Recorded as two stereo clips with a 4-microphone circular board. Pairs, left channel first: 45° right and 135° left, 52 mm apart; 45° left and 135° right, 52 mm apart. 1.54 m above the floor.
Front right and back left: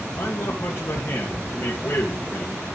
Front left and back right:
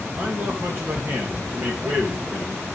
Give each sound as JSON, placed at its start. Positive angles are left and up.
{"t": 0.2, "sound": "a man speaking", "azimuth_deg": -85, "distance_m": 2.5}